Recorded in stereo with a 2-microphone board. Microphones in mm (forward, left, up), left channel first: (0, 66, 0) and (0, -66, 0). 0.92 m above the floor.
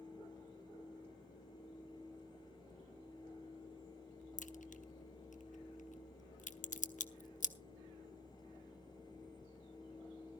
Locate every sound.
4.4 s a crack: 70° left (ahead or behind), 0.8 m